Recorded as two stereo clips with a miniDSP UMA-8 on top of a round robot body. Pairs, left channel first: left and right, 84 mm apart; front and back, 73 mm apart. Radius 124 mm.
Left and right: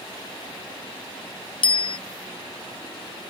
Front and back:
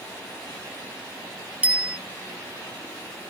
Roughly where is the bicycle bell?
Left.